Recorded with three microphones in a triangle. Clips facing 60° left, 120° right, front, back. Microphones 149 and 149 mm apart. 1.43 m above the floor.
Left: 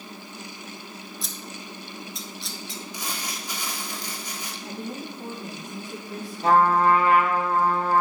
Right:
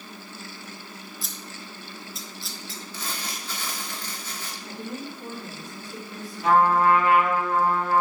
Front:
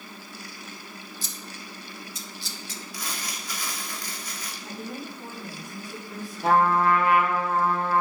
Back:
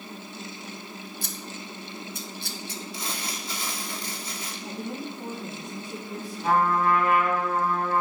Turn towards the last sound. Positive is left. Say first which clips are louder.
# even, front 2 dB
turn(degrees=5)